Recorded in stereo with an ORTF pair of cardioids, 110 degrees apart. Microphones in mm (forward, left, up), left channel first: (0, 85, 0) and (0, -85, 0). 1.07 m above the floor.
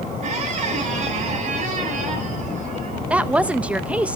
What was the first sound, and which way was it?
A squeak, 50° right.